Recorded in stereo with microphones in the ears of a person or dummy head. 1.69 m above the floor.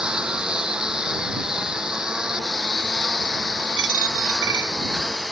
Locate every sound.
0.0 s a lawn mower: centre (ahead or behind); by 5.3 s 5° left (ahead or behind)
3.8 s a dropped coin: 70° right (ahead or behind)